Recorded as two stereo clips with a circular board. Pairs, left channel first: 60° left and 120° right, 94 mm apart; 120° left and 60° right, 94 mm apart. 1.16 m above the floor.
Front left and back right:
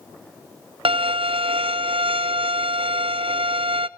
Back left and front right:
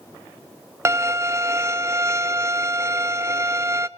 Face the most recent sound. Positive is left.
turn(degrees=-120)